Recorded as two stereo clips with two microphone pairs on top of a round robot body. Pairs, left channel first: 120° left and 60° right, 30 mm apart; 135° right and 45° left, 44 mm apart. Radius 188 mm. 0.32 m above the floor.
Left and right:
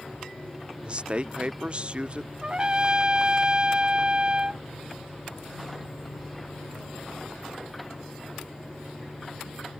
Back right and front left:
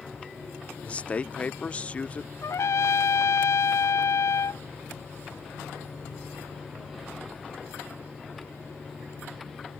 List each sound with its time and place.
0.8 s a man speaking: 85° right
2.4 s a trumpet: 120° right